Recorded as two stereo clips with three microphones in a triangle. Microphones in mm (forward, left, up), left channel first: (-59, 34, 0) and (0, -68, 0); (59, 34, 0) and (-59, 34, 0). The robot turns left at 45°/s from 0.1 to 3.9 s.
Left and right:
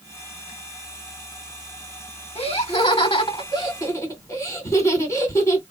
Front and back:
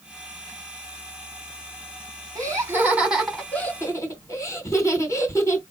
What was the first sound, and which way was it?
Laughter, 130° left.